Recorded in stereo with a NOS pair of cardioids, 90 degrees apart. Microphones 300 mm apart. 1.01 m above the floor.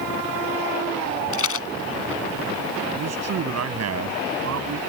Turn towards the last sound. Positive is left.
turn(degrees=-60)